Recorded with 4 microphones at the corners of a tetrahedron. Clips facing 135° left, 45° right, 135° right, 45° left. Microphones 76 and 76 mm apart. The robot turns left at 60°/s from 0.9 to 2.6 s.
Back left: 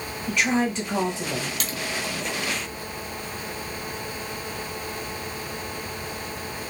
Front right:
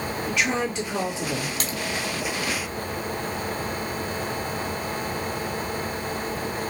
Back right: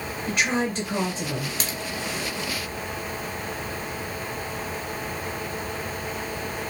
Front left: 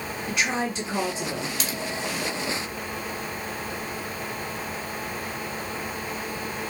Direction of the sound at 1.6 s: 95° right.